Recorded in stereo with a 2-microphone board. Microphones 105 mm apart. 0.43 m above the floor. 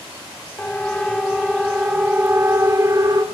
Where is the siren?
15° left (ahead or behind), 2.5 m; by 3.2 s 35° right (ahead or behind), 2.5 m.